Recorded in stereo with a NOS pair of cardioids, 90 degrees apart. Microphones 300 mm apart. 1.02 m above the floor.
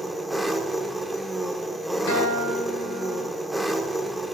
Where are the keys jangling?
I don't hear keys jangling.